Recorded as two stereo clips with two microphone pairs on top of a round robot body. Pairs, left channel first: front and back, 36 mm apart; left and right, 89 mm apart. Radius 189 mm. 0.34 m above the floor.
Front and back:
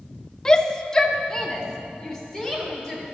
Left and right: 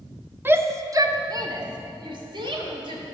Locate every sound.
0.5 s a shout: 55° right, 0.9 m; by 3.0 s 75° right, 2 m